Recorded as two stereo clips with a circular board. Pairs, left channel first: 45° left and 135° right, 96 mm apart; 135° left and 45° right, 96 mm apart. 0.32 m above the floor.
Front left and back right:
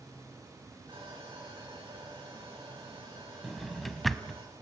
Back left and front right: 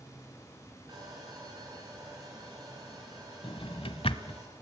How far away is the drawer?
About 0.9 m.